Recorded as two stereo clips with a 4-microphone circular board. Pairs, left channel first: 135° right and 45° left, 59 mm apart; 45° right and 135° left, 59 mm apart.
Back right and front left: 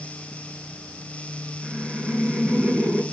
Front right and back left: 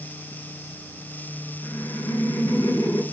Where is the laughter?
30° right, 6 m.